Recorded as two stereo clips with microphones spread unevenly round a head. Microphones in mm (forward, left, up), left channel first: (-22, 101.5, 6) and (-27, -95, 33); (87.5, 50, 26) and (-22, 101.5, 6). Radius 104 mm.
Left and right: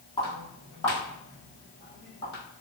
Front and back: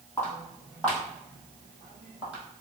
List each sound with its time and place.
0.2 s footsteps: 20° left, 2.0 m; by 2.4 s 65° left, 2.5 m